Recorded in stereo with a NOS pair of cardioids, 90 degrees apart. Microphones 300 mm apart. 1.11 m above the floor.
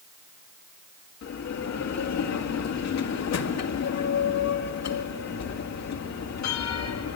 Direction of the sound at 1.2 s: 60° left.